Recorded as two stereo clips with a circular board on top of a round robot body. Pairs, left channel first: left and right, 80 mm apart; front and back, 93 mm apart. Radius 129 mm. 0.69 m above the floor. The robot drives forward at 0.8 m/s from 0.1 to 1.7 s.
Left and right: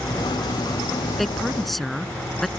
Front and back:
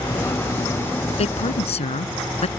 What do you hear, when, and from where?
1.2 s a woman speaking: 5° left